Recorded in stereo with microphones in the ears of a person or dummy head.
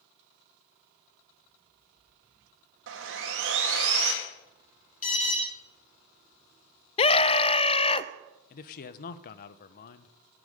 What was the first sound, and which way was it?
Sawing, 75° right (ahead or behind).